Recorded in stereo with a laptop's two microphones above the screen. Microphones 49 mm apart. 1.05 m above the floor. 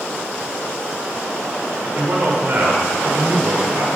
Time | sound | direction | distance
1.8 | a man speaking | 45° right (ahead or behind) | 4 m